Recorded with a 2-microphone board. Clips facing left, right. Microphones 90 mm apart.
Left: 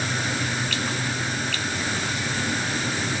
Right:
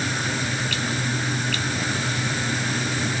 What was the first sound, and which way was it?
Only background noise.